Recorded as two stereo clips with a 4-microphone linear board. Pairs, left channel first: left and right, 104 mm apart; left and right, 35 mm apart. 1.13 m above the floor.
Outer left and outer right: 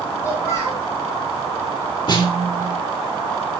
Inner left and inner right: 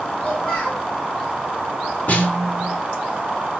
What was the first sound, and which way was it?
A child speaking, 30° left (ahead or behind).